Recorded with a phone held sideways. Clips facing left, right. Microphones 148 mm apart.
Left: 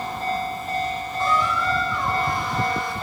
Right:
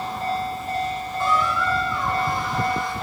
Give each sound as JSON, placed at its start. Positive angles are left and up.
{"t": 1.2, "sound": "a squeak", "side_deg": -5, "distance_m": 2.0}